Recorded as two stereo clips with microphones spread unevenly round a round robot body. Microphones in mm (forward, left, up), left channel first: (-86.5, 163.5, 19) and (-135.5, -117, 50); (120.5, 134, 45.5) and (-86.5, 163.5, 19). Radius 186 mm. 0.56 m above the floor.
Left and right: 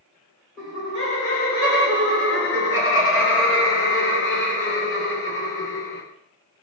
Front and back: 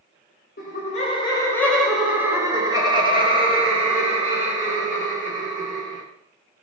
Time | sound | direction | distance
0.6 | laughter | 15° left | 0.9 m